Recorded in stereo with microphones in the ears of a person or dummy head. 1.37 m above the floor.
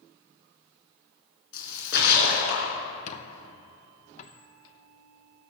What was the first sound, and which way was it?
A splash, 60° left (ahead or behind).